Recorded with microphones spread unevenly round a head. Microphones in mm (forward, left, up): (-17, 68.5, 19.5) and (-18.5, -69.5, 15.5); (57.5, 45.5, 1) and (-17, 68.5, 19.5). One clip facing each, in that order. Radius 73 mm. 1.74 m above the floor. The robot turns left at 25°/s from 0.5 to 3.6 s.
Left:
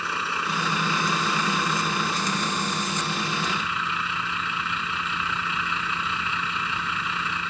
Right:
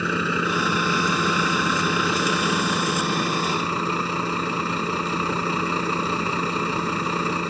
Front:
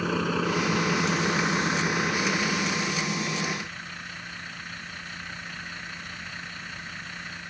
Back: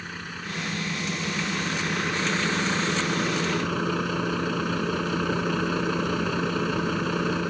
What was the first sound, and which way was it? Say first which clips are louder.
A vehicle: right 6 dB, front 10 dB; 70° right.